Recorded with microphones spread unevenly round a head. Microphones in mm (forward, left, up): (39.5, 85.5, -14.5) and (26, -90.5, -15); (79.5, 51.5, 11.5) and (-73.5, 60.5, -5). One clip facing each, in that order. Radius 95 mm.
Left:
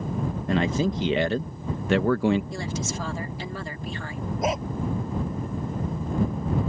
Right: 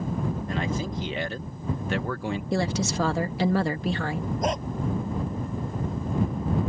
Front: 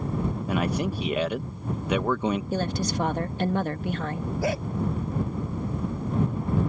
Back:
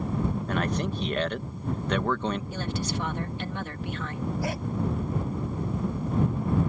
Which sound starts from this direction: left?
A man speaking, at 0.5 s.